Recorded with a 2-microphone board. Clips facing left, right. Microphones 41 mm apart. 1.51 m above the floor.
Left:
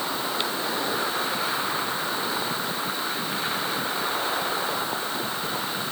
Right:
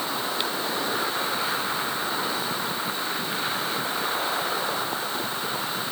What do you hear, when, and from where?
Only background noise.